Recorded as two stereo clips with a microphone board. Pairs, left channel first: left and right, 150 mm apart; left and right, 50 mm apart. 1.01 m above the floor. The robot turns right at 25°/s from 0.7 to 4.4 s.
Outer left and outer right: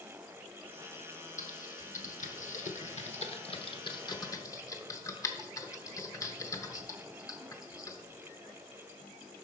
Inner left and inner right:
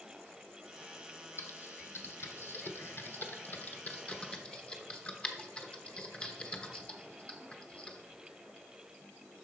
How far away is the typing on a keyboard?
About 0.9 m.